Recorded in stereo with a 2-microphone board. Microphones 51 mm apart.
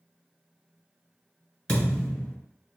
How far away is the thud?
About 1.7 m.